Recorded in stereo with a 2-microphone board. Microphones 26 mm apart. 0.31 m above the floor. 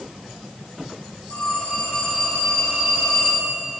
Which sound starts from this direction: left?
A phone ringing, at 1.3 s.